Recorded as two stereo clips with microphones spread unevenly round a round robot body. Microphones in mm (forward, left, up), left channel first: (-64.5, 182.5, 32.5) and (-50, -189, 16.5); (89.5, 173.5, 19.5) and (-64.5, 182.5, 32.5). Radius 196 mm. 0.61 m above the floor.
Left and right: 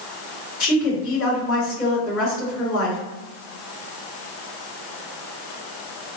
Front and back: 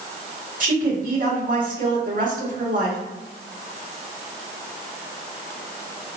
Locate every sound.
0.6 s a woman speaking: 145° left, 1.9 m